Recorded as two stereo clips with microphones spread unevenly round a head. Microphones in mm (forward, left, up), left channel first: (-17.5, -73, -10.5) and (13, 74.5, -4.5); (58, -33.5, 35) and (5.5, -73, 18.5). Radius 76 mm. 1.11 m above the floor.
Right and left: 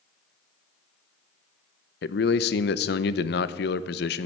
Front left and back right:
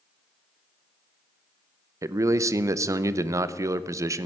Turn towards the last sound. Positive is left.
turn(degrees=-115)